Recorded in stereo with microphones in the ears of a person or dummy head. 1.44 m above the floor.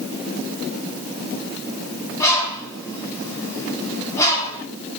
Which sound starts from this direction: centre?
A bird, at 2.2 s.